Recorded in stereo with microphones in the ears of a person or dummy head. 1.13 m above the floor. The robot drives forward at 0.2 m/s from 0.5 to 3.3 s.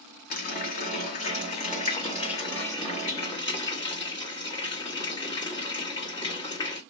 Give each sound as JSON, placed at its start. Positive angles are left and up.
{"t": 0.3, "sound": "a running tap", "side_deg": 40, "distance_m": 0.7}